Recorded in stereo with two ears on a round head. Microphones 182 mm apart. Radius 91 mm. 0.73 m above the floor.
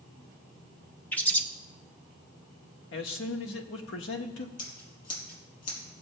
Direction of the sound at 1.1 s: 10° left (ahead or behind).